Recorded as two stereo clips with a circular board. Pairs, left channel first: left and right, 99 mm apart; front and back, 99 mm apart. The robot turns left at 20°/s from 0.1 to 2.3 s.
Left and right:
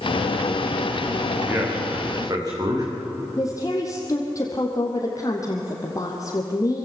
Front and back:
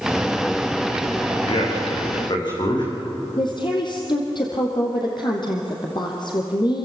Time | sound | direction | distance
1.5 | a man speaking | 25° right | 7.5 m
3.4 | a woman speaking | 35° left | 3 m